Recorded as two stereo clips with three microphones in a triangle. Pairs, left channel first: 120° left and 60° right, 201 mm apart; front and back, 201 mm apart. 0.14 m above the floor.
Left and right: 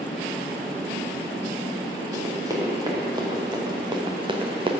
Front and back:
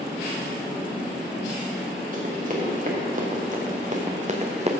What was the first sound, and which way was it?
Running footsteps, 130° right.